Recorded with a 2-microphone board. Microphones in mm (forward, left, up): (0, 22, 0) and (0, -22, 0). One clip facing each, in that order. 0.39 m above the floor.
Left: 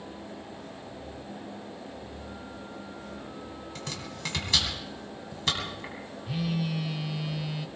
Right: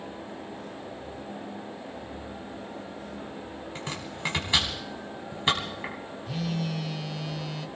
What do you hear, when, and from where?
3.8 s chopping: 25° right (ahead or behind), 3 m
6.3 s a phone buzzing: 10° left (ahead or behind), 0.7 m